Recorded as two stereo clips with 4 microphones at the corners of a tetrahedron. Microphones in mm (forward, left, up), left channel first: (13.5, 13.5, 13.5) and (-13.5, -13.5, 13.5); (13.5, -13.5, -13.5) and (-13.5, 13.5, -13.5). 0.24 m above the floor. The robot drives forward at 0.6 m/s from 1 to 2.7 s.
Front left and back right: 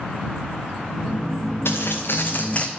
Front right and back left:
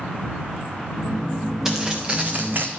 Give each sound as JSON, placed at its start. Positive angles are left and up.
{"t": 1.6, "sound": "footsteps", "azimuth_deg": 55, "distance_m": 2.5}